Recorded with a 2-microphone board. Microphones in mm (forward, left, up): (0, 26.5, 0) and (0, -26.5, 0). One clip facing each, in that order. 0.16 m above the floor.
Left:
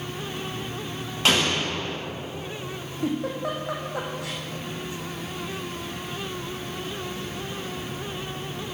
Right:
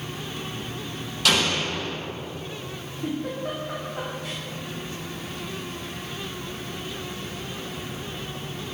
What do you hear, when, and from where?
1.2 s an explosion: 30° left (ahead or behind), 3.5 m
3.0 s a giggle: 85° left, 2.5 m